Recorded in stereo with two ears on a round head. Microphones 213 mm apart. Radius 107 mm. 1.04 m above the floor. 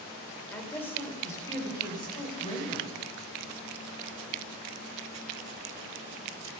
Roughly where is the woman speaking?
Centre.